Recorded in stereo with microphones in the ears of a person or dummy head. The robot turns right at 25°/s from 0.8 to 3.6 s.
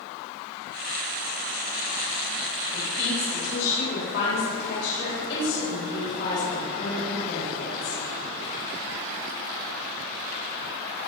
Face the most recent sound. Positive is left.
turn(degrees=65)  # may be behind; listen again after turning